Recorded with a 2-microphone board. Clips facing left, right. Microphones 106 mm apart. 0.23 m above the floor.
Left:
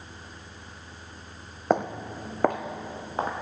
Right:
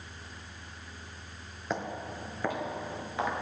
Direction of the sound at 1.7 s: 55° left (ahead or behind).